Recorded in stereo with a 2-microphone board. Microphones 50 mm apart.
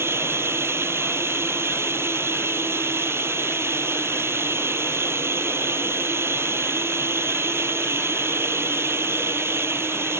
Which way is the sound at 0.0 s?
55° right (ahead or behind).